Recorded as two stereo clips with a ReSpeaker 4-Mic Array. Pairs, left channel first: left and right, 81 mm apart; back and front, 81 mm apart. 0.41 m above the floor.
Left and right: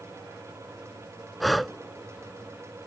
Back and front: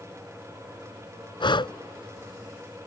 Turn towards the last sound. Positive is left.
turn(degrees=180)